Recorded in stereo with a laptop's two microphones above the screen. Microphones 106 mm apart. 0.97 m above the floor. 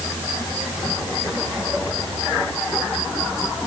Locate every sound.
Only background noise.